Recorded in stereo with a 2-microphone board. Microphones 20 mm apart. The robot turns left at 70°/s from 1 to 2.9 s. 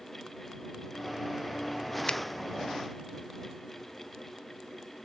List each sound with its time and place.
2.1 s a finger snap: 45° left (ahead or behind); by 2.2 s 55° left (ahead or behind)